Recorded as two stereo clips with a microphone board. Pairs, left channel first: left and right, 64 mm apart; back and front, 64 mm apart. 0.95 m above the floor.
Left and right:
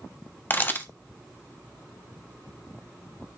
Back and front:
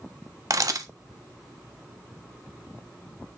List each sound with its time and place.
0.5 s a camera shutter: 30° left, 1.2 m